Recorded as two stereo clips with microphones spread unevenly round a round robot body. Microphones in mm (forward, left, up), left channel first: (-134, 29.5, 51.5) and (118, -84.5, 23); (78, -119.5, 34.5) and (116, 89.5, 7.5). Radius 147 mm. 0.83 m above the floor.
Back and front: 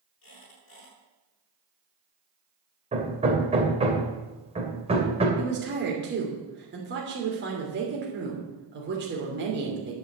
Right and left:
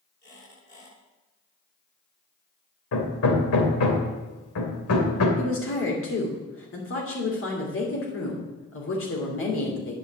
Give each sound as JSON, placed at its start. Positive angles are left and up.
{"t": 0.2, "sound": "a squeak", "azimuth_deg": -160, "distance_m": 7.0}
{"t": 2.9, "sound": "hammering", "azimuth_deg": -95, "distance_m": 3.0}
{"t": 5.4, "sound": "a woman speaking", "azimuth_deg": -75, "distance_m": 3.0}